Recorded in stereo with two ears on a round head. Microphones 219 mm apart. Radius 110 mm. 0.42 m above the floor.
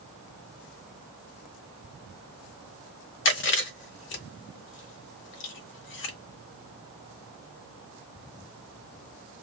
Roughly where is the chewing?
Left.